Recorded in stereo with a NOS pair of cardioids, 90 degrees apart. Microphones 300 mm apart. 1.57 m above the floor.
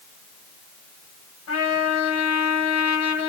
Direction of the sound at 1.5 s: 55° left.